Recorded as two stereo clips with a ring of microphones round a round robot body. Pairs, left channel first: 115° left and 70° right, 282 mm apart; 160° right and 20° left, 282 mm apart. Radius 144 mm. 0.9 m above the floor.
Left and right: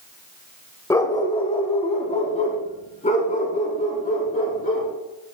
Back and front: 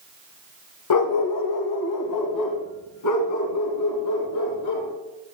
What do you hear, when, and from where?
0.9 s a dog barking: 170° right, 1.0 m; by 4.9 s 175° left, 4 m